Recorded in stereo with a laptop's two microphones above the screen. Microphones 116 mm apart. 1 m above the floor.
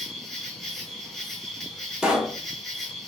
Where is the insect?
Centre (ahead or behind), 1.2 m.